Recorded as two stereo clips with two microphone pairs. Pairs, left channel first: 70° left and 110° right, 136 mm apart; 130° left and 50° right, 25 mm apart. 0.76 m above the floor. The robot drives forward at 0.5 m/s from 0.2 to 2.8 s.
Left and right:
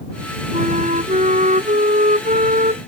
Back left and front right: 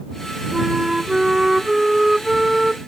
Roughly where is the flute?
Behind right.